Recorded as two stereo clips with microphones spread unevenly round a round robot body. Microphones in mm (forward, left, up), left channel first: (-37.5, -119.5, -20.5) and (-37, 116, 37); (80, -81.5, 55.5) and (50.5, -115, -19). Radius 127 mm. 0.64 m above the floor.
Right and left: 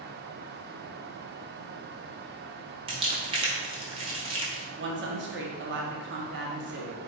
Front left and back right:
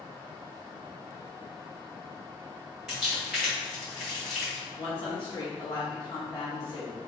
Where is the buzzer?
I don't hear a buzzer.